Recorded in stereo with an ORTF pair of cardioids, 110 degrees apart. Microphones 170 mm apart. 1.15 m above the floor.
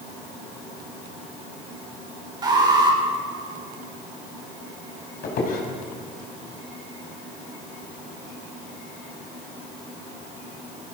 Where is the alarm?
25° right, 4 m.